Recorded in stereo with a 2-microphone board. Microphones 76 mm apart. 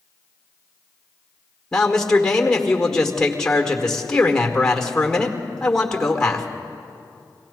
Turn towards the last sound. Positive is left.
turn(degrees=5)  # may be behind; listen again after turning